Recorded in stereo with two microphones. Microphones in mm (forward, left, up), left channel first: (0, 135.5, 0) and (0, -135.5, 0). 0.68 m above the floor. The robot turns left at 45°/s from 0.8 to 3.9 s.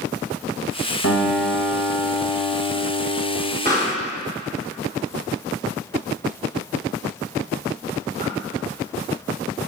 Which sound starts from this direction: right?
A pop, at 3.6 s.